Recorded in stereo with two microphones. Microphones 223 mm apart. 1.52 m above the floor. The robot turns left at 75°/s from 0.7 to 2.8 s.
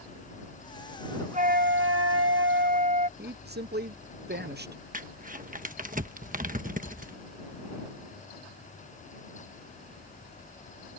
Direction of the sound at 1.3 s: 30° right.